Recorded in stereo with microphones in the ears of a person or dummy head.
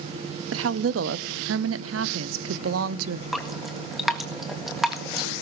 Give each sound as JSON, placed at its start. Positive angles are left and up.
{"t": 0.5, "sound": "a woman speaking", "side_deg": -70, "distance_m": 1.0}
{"t": 3.3, "sound": "dripping", "side_deg": 0, "distance_m": 1.6}